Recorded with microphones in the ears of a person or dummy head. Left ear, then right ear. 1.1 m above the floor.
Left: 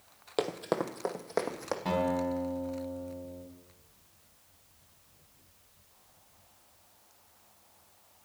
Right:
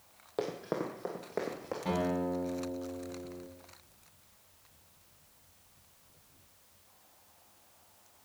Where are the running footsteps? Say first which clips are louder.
Left 4 dB; 35° left (ahead or behind), 1.3 m; by 1.8 s 50° left (ahead or behind), 2 m.